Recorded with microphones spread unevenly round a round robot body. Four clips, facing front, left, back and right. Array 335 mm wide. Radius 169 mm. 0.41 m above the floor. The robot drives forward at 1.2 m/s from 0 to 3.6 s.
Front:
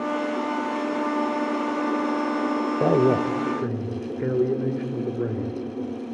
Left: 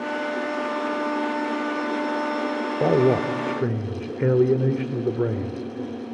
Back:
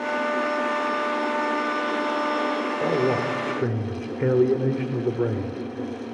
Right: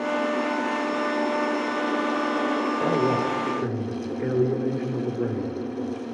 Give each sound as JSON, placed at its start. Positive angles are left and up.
{"t": 2.8, "sound": "a man speaking", "azimuth_deg": 45, "distance_m": 1.1}